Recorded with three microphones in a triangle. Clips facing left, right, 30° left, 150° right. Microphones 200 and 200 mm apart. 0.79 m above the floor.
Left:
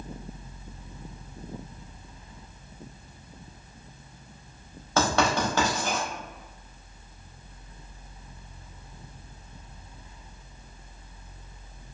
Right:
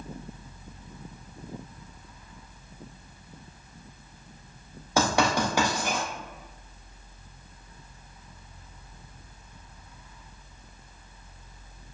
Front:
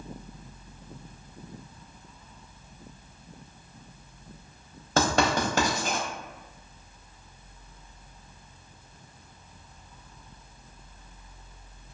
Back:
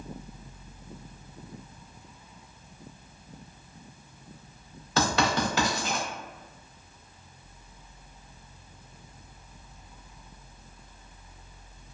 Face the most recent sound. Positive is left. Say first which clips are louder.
# even, front 2 dB
turn(degrees=-15)